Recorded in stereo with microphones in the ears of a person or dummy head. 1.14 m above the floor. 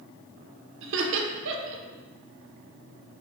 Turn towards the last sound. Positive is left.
turn(degrees=-70)  # may be behind; listen again after turning